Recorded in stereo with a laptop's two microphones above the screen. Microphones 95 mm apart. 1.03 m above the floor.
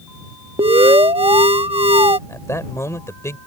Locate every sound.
0.6 s an alarm: 75° right (ahead or behind)
2.3 s a man speaking: 30° left (ahead or behind)